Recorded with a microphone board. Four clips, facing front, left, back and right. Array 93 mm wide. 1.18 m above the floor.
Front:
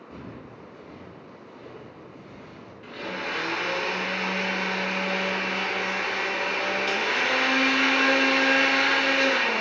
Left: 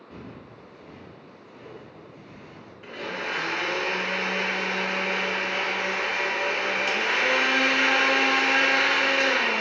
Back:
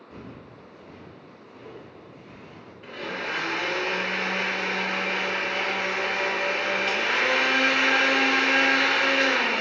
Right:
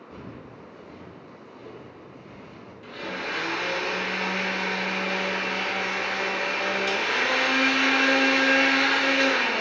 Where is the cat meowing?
I don't hear a cat meowing.